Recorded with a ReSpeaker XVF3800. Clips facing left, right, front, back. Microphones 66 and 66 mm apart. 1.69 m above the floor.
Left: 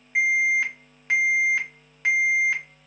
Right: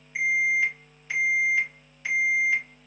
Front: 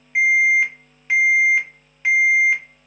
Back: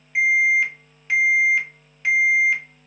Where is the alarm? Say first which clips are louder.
Left 2 dB, front 2 dB; 70° left, 1.5 m.